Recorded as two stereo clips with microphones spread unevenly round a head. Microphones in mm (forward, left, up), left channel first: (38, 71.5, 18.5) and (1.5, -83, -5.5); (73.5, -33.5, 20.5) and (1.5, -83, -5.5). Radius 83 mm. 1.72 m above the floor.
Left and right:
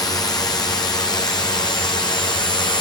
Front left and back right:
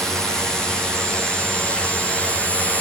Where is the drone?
140° left; by 2.8 s 130° left.